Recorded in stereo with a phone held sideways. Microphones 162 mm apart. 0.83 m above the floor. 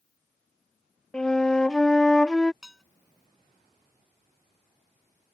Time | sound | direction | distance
1.1 | a flute | 5° left (ahead or behind) | ?
2.6 | dishes clattering | 5° right (ahead or behind) | ?